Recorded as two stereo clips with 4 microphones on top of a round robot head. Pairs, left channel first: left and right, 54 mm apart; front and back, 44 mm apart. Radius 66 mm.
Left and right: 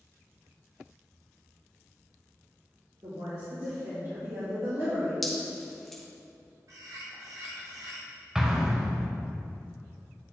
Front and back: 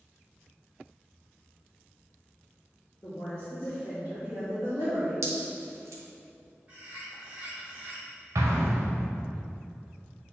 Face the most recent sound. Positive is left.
turn(degrees=-170)